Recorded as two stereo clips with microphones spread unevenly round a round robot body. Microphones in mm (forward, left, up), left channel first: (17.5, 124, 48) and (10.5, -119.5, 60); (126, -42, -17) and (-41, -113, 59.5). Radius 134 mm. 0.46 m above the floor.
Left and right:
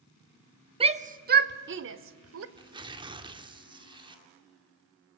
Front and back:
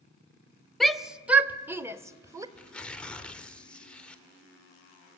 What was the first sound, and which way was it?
A shout, 35° right.